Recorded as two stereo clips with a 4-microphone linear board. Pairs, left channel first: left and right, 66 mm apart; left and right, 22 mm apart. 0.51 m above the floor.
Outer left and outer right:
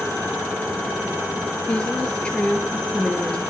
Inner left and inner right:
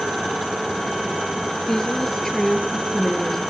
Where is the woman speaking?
20° left (ahead or behind), 8 m; by 3.4 s 15° left (ahead or behind), 8.5 m.